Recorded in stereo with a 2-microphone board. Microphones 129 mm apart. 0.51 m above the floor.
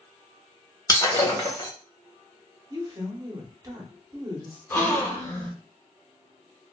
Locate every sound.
0.9 s breaking glass: 30° left (ahead or behind), 1.1 m
2.7 s a woman speaking: 30° right (ahead or behind), 0.8 m
4.7 s a gasp: 20° left (ahead or behind), 1.8 m